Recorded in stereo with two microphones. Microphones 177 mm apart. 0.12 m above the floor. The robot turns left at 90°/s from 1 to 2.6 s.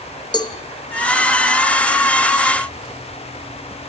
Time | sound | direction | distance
0.3 | a cowbell | 25° left (ahead or behind) | 1.1 m